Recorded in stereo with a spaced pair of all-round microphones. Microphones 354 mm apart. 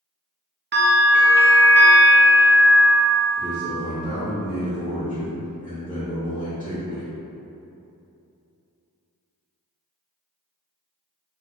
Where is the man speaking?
15° left (ahead or behind), 0.8 m.